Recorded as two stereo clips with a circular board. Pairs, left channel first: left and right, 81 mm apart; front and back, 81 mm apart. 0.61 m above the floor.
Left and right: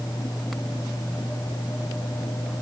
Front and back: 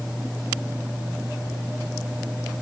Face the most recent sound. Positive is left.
No sound to turn to.